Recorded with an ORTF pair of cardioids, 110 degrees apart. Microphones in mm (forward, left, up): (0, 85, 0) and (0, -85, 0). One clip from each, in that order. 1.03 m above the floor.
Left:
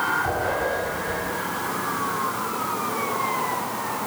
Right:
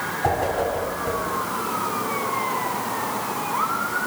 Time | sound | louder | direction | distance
0.2 | a whoosh | right 2 dB | 50° right | 4.5 m